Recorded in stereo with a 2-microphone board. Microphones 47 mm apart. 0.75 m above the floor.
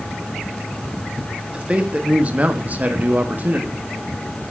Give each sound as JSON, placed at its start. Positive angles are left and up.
{"t": 1.5, "sound": "a man speaking", "side_deg": -25, "distance_m": 1.5}